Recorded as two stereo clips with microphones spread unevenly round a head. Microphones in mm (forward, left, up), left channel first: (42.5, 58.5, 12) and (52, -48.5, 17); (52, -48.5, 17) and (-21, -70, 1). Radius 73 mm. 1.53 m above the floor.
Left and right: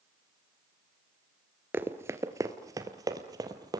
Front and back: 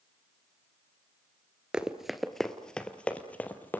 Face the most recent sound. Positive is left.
turn(degrees=-40)